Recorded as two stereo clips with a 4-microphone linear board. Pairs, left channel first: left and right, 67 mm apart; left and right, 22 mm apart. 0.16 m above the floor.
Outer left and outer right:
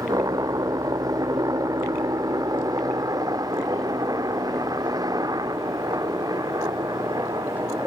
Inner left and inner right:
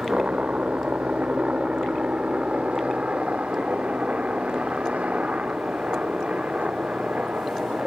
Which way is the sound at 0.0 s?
65° right (ahead or behind).